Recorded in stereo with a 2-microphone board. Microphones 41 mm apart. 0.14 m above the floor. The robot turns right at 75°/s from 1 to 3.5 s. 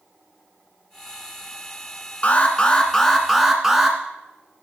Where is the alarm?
30° left (ahead or behind), 1.7 m; by 4.0 s 10° right (ahead or behind), 1.7 m.